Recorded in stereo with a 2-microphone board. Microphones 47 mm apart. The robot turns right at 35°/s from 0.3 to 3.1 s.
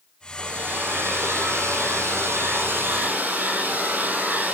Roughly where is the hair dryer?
Behind right.